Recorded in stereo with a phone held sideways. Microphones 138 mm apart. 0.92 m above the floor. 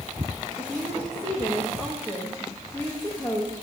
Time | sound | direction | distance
0.6 | a woman speaking | 15° left (ahead or behind) | 1.4 m